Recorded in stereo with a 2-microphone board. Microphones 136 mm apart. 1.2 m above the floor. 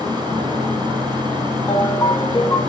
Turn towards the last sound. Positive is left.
turn(degrees=25)  # may be behind; listen again after turning